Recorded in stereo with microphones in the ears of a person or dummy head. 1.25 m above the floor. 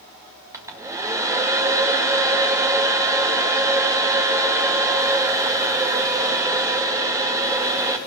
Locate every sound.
0.5 s a hair dryer: 10° right (ahead or behind), 1.6 m